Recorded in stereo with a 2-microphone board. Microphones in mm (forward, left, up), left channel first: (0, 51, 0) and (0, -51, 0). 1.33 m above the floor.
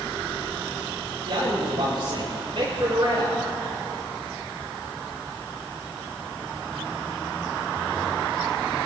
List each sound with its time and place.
1.2 s a man speaking: 60° right (ahead or behind), 7.5 m; by 3.4 s 65° right (ahead or behind), 6 m